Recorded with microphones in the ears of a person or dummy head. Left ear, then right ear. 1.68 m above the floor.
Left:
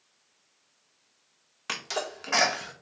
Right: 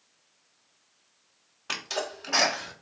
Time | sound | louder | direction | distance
1.7 | a sneeze | even | 65° left (ahead or behind) | 1.8 m